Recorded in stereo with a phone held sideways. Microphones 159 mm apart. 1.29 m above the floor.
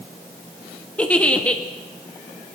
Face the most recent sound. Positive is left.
turn(degrees=5)  # may be behind; listen again after turning